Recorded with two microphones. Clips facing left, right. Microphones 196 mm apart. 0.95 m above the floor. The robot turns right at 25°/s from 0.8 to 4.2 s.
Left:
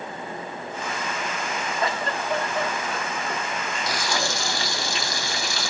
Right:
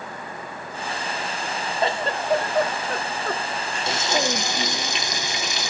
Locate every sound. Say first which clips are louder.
1.8 s a giggle: right 4 dB; 150° right, 1.1 m; by 4.9 s 95° right, 1.1 m
3.9 s frying: right 5 dB; 30° right (ahead or behind), 0.7 m; by 5.7 s 20° right (ahead or behind), 0.7 m